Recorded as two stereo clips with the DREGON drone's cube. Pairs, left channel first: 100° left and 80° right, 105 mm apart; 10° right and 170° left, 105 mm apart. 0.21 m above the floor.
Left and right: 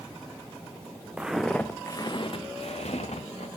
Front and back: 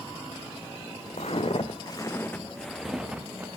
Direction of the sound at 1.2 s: Straight ahead.